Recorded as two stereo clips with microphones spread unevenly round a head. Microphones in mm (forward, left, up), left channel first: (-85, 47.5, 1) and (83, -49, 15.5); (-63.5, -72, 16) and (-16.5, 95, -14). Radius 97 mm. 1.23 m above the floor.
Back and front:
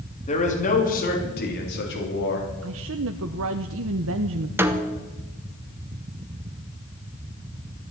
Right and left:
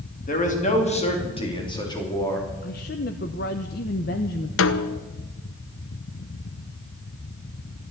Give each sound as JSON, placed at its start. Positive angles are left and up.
{"t": 0.3, "sound": "a man speaking", "azimuth_deg": -150, "distance_m": 3.0}
{"t": 2.6, "sound": "a woman speaking", "azimuth_deg": -55, "distance_m": 0.8}
{"t": 4.6, "sound": "a snare drum", "azimuth_deg": -110, "distance_m": 1.0}